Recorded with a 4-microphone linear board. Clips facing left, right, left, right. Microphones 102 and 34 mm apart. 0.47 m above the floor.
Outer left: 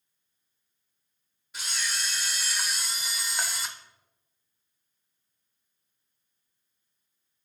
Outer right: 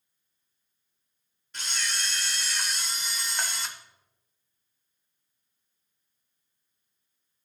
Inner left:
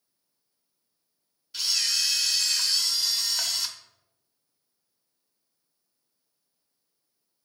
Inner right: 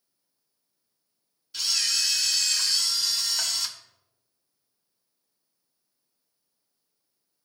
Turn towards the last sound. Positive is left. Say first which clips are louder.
# even, even
turn(degrees=5)  # may be behind; listen again after turning